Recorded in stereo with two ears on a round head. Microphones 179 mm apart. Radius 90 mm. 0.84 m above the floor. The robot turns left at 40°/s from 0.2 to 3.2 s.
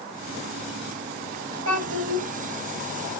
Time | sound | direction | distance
1.6 | a child speaking | 80° right | 4 m